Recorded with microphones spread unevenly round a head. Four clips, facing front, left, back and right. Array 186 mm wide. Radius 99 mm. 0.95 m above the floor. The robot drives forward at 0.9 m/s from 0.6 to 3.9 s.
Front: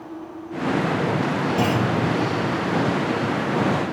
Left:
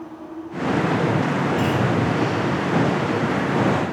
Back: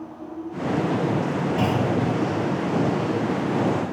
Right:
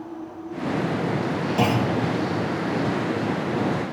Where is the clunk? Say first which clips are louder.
Even, front 1 dB; 85° right, 3.5 m; by 1.9 s 90° right, 3.5 m.